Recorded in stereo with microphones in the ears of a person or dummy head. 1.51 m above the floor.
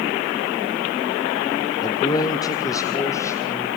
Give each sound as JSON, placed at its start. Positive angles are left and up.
{"t": 1.8, "sound": "a man speaking", "side_deg": 25, "distance_m": 0.6}